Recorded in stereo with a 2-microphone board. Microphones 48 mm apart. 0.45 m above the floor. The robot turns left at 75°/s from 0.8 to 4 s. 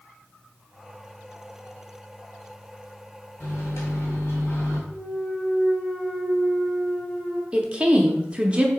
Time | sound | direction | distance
3.4 | a microwave | 125° left | 1.7 m
4.9 | a clunk | 10° left (ahead or behind) | 1.6 m
7.5 | a woman speaking | 20° right (ahead or behind) | 0.7 m